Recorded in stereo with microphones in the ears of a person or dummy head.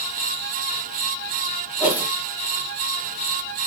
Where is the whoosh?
10° right (ahead or behind), 1.0 m.